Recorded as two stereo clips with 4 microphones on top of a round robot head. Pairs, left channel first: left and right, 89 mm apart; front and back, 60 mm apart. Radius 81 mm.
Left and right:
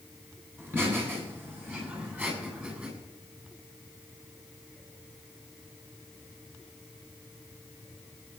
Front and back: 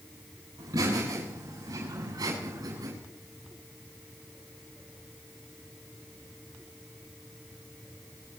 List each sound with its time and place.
0.6 s laughter: 155° right, 7.5 m; by 2.9 s 165° right, 7.5 m